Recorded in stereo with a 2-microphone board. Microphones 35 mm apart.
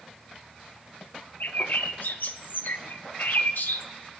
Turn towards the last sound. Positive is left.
turn(degrees=80)